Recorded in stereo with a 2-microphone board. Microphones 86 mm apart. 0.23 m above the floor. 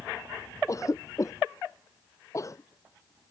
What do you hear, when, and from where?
0.7 s a cough: 40° left (ahead or behind)